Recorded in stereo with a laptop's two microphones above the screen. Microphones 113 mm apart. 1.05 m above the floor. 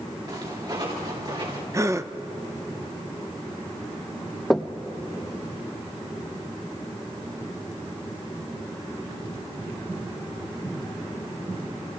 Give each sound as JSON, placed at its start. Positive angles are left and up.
{"t": 0.3, "sound": "footsteps", "side_deg": -40, "distance_m": 7.5}
{"t": 1.7, "sound": "a gasp", "side_deg": -25, "distance_m": 0.6}
{"t": 4.5, "sound": "knocking", "side_deg": 0, "distance_m": 0.7}